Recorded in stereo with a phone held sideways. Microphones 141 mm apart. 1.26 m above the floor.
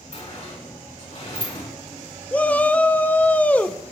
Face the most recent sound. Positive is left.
turn(degrees=10)  # may be behind; listen again after turning